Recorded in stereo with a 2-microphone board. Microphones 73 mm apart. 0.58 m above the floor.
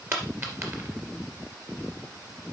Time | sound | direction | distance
0.1 | a dropped coin | 35° right (ahead or behind) | 2.5 m